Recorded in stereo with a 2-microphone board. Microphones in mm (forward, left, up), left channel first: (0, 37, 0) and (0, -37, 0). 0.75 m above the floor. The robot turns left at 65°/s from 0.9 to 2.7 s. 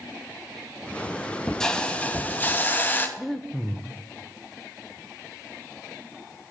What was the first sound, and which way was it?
A hiss, 5° left (ahead or behind).